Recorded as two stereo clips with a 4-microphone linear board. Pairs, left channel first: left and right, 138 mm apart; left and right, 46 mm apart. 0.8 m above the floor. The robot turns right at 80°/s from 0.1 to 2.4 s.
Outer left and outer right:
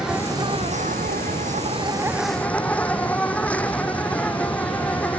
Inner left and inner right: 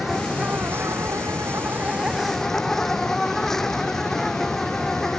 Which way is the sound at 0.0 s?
175° right.